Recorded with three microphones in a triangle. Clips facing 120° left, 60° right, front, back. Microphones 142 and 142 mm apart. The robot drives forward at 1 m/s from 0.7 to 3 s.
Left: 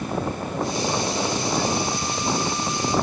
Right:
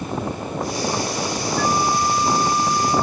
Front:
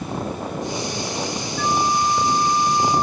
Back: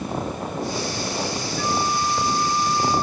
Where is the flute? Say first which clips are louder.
Right 4 dB, front 4 dB; 35° right; by 3.0 s 40° right.